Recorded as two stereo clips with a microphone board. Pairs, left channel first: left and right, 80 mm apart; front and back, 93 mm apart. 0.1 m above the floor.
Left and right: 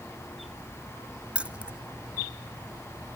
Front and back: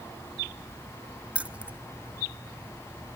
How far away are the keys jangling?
About 0.8 m.